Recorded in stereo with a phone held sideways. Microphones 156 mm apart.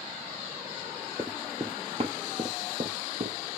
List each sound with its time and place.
1.2 s running footsteps: 20° right (ahead or behind), 0.9 m; by 3.6 s 65° right (ahead or behind), 1.8 m